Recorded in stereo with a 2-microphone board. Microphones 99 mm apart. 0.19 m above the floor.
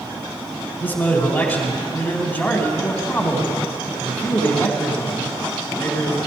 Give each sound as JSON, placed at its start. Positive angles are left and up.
{"t": 0.8, "sound": "a man speaking", "side_deg": 20, "distance_m": 1.6}